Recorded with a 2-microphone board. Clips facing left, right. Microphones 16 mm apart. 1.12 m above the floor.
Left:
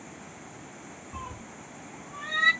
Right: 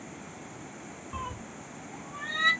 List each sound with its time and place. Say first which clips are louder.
1.1 s a cat meowing: right 3 dB; 40° right (ahead or behind), 0.8 m; by 2.5 s 20° left (ahead or behind), 1.1 m